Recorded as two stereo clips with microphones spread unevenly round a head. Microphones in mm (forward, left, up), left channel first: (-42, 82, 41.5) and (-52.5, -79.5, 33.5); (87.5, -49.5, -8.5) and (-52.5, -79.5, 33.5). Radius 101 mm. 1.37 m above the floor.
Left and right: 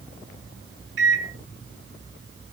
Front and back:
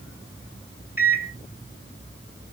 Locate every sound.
1.0 s a microwave: 95° right, 1.5 m